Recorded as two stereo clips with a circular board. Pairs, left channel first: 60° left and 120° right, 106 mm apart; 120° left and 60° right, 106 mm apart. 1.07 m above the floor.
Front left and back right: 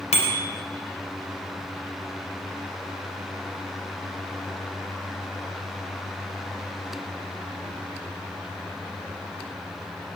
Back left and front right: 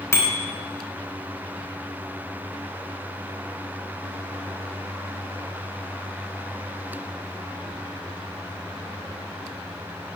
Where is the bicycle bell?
55° left, 3.5 m.